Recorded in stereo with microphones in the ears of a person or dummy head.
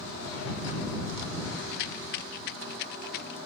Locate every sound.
1.7 s a rattle: 60° left (ahead or behind)